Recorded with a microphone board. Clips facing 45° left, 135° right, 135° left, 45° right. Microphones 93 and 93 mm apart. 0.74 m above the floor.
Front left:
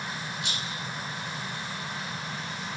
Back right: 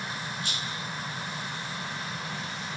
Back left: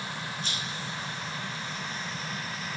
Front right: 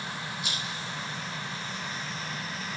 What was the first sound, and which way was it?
A rattle, 35° left.